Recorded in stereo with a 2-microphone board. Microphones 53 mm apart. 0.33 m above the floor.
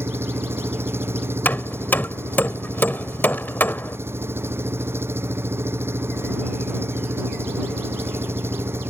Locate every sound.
0.0 s an engine running: 50° right (ahead or behind)
1.4 s hammering: 40° left (ahead or behind)